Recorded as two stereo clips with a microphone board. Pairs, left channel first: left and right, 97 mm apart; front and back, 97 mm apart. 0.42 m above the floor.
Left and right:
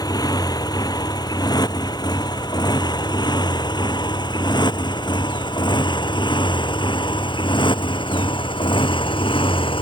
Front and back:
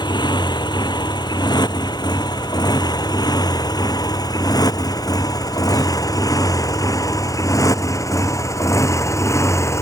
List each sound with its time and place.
0.0 s a motorcycle: 40° left; by 9.8 s 60° left